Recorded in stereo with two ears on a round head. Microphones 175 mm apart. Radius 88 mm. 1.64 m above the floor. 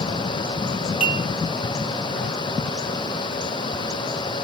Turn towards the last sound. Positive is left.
turn(degrees=30)  # may be behind; listen again after turning